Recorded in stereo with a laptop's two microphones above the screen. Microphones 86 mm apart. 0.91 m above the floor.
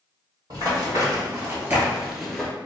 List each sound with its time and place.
0.5 s running footsteps: 45° right (ahead or behind), 1.5 m; by 2.5 s 10° left (ahead or behind), 0.9 m